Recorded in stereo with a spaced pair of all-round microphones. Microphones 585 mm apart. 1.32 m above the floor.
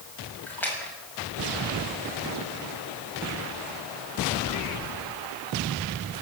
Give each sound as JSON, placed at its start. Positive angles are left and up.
{"t": 0.5, "sound": "a splash", "side_deg": 5, "distance_m": 7.5}